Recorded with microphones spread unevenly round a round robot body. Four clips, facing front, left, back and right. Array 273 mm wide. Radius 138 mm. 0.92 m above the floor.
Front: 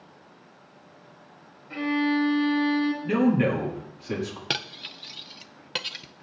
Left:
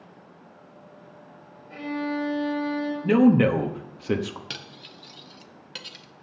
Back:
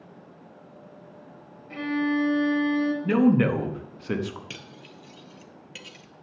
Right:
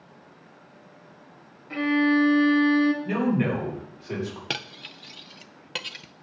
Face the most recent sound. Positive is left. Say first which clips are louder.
# right 6 dB, front 8 dB
turn(degrees=-30)